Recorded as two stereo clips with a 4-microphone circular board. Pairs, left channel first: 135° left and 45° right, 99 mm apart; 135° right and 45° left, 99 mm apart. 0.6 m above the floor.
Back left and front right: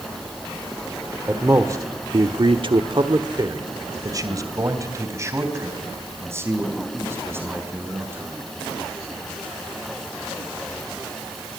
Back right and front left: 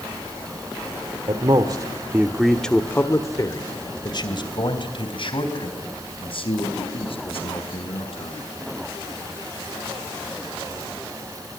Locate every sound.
1.3 s a man speaking: 20° left, 1.7 m; by 8.5 s 110° right, 7 m